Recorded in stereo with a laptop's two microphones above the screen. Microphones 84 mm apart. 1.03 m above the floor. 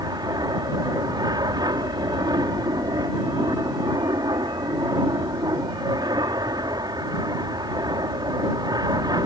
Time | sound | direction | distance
0.0 | an aircraft | 55° right (ahead or behind) | ?